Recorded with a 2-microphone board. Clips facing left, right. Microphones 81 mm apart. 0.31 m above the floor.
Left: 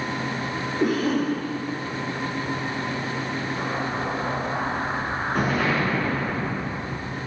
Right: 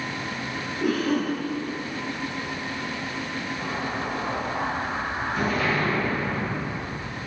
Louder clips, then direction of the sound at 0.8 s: Left 1 dB; 45° left (ahead or behind).